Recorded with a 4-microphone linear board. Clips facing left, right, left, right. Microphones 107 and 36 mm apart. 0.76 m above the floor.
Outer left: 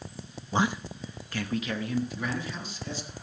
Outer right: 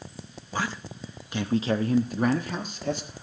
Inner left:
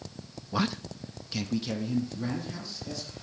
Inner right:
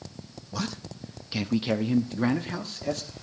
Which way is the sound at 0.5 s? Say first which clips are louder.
Outer left 4 dB, inner left 4 dB; 25° left (ahead or behind).